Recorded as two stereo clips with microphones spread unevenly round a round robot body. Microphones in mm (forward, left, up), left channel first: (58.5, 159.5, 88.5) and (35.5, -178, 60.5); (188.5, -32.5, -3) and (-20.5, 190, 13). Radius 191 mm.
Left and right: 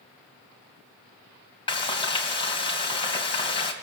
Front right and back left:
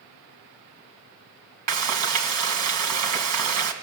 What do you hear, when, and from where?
1.7 s frying: 160° left, 2.5 m